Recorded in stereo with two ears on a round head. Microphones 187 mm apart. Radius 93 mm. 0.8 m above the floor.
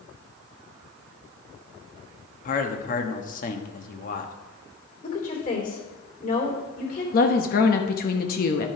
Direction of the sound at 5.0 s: 40° left (ahead or behind).